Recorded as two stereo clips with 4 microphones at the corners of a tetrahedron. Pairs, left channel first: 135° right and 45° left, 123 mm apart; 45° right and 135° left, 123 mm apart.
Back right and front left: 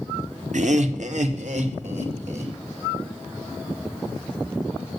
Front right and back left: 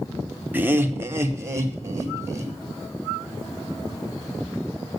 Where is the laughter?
60° left, 0.8 m; by 2.5 s 70° left, 2 m.